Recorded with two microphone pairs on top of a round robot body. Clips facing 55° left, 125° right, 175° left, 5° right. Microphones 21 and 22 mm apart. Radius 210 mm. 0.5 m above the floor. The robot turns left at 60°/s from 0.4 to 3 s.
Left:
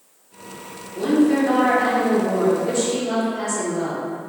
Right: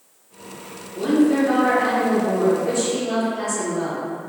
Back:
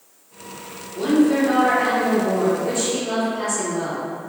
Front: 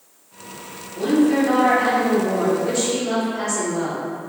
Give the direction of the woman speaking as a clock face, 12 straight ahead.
9 o'clock.